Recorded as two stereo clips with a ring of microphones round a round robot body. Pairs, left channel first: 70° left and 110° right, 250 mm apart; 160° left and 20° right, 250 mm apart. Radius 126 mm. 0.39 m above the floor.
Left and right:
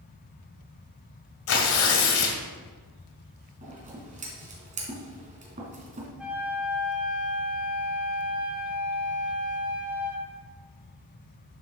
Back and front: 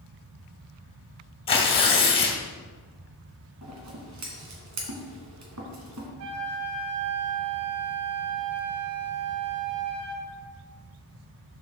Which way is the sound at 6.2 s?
25° right.